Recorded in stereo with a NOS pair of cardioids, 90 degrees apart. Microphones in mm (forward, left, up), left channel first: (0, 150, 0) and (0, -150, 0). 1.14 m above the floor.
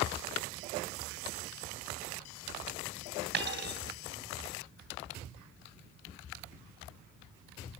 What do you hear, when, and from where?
3.3 s a dropped coin: 40° right, 3 m